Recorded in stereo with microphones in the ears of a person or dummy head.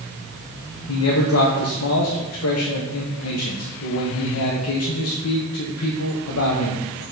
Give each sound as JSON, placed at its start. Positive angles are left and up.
{"t": 0.9, "sound": "a man speaking", "side_deg": 80, "distance_m": 0.9}